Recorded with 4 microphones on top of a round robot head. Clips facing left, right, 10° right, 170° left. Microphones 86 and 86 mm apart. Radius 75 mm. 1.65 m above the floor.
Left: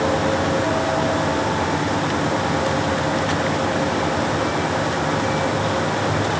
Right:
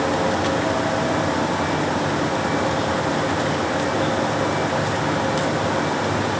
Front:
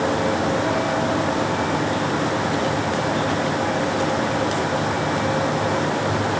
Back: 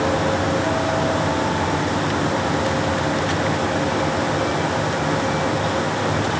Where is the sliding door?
No sliding door in this recording.